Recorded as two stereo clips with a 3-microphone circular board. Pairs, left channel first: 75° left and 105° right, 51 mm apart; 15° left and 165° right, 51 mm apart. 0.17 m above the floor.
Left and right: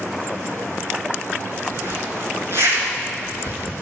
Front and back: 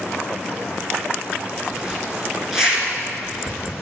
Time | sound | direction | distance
1.7 | a zipper | 85° right | 3 m